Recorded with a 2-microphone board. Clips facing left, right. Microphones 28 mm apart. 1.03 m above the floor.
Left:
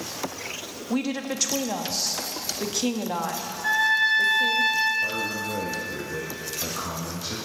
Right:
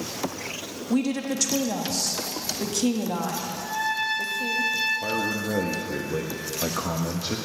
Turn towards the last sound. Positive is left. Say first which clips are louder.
# right 1 dB
turn(degrees=-25)  # may be behind; listen again after turning